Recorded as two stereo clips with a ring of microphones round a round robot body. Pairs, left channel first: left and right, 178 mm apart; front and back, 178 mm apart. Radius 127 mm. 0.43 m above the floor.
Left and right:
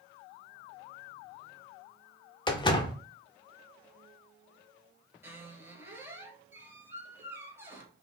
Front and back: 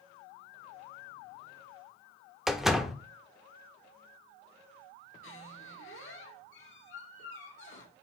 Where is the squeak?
15° right, 1.8 m.